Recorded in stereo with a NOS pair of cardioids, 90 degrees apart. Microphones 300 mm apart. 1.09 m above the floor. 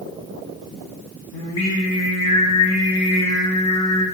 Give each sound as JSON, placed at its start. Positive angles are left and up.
{"t": 1.3, "sound": "singing", "azimuth_deg": 70, "distance_m": 1.1}